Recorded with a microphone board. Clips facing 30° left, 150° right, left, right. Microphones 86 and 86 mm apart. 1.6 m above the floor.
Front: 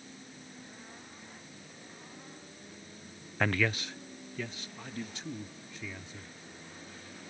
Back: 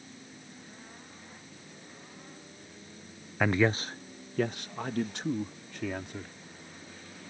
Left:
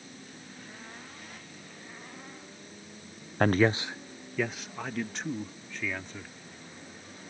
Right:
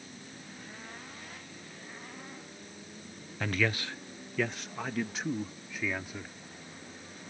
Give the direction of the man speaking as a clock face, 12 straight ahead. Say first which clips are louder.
Back 4 dB, left 8 dB; 8 o'clock.